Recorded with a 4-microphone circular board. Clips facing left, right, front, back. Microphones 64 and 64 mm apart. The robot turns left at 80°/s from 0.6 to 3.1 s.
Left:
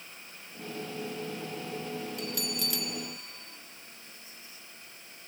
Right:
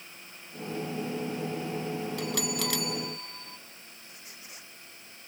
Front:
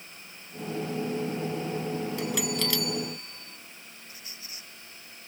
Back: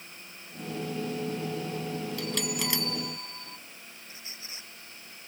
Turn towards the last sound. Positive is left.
turn(degrees=-115)